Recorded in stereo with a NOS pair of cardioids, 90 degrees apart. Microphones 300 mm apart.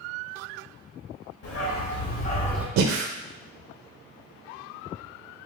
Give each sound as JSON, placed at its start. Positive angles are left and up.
{"t": 1.4, "sound": "a dog barking", "azimuth_deg": 55, "distance_m": 2.0}
{"t": 2.8, "sound": "breathing", "azimuth_deg": -65, "distance_m": 0.7}